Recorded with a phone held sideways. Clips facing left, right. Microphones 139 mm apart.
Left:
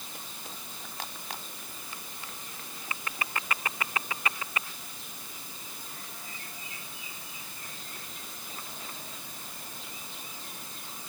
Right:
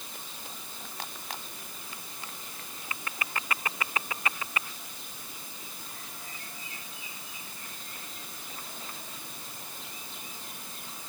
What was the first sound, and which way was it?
Only background noise.